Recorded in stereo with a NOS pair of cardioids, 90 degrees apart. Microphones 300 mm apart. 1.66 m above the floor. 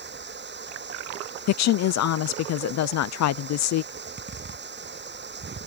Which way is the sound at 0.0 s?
35° right.